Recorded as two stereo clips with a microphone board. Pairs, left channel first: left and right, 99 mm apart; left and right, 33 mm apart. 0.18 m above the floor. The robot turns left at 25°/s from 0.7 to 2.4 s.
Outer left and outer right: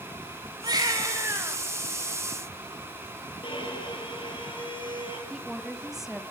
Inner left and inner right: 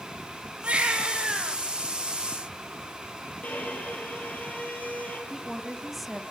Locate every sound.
0.6 s a baby crying: 45° right (ahead or behind), 2 m; by 1.6 s 20° right (ahead or behind), 2 m
3.4 s a violin: 55° left (ahead or behind), 5 m
5.3 s a woman speaking: 5° right (ahead or behind), 1.3 m